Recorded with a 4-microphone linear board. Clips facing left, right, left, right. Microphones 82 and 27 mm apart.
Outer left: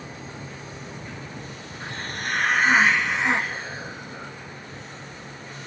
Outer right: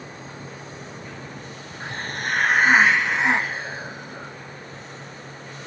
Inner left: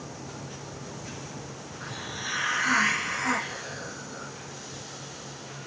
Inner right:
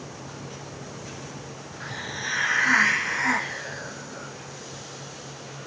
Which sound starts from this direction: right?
A hiss, at 1.8 s.